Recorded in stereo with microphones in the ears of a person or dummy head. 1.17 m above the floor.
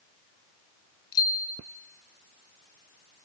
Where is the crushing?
I don't hear crushing.